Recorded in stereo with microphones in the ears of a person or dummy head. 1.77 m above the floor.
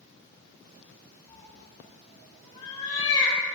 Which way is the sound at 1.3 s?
25° left (ahead or behind).